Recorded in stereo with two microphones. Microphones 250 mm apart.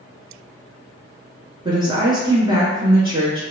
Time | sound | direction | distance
1.6 | a woman speaking | 20° right (ahead or behind) | 1.1 m